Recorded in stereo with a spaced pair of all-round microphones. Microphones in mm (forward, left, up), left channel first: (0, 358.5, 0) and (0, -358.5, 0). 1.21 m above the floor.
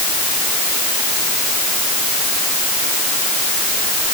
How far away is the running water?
No running water in this recording.